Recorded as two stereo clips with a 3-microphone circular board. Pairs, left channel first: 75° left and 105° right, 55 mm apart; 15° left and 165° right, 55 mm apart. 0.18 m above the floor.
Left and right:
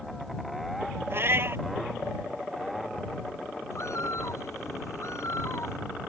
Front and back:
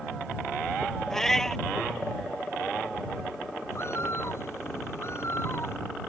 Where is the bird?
50° left.